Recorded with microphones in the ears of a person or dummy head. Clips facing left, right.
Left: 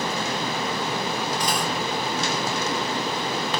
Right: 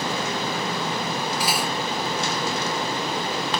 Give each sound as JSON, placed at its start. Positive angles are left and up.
{"t": 1.4, "sound": "cutlery clinking", "side_deg": -5}